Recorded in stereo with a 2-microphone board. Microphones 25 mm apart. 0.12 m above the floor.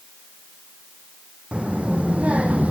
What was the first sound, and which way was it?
A child speaking, 50° right (ahead or behind).